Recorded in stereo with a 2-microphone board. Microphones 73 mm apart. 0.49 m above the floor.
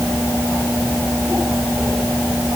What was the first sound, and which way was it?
Only background noise.